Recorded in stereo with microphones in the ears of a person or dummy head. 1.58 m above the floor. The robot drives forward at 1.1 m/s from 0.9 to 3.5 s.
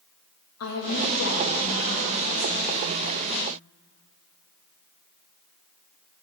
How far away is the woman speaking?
About 2 m.